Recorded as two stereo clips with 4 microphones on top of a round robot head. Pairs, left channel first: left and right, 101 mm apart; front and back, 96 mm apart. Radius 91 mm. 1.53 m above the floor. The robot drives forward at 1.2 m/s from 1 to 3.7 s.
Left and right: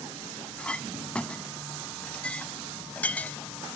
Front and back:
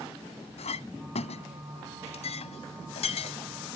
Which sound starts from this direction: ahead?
A clink, at 0.6 s.